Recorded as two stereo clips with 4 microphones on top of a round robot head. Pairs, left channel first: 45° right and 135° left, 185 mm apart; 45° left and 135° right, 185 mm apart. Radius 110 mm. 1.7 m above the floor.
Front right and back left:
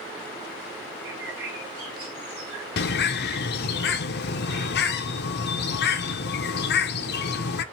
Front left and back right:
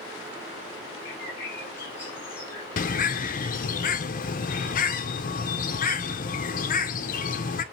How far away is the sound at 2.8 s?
About 0.6 m.